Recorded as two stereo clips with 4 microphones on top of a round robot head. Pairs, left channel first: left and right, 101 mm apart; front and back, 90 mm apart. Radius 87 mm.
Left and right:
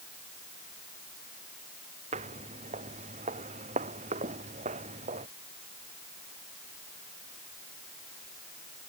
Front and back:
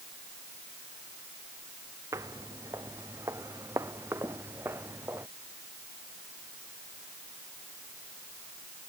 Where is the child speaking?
No child speaking in this recording.